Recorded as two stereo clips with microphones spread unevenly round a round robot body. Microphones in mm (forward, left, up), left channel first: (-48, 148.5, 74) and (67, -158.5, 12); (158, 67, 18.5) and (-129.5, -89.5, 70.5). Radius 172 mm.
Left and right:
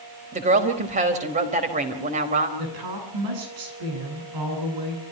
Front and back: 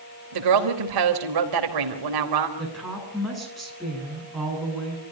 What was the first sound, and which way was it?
A woman speaking, 135° right.